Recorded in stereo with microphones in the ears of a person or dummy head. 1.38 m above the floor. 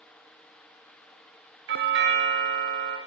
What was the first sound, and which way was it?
A doorbell, 55° right (ahead or behind).